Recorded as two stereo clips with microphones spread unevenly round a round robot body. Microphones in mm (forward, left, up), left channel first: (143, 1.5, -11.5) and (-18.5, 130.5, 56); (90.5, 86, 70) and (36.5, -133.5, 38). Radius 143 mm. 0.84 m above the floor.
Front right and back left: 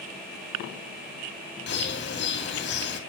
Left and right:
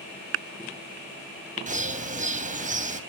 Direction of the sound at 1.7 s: 55° right.